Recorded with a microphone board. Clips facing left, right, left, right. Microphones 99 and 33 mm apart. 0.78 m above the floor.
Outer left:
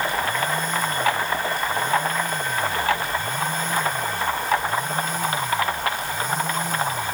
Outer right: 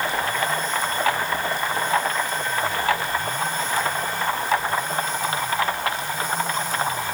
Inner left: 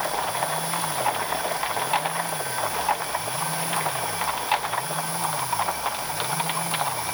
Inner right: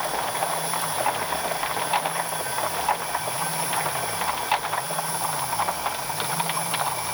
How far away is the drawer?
I don't hear a drawer.